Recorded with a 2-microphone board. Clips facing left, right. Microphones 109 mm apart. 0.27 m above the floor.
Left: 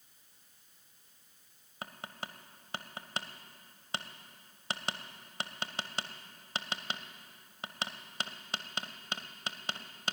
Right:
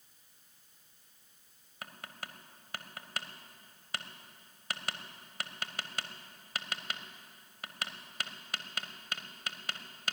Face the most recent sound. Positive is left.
turn(degrees=25)  # may be behind; listen again after turning